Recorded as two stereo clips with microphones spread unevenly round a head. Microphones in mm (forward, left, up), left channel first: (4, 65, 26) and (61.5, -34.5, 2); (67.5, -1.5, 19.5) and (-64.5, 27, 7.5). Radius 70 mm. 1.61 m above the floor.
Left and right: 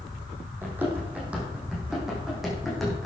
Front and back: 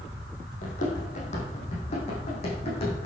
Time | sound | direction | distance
0.6 | running footsteps | 15° left | 4.5 m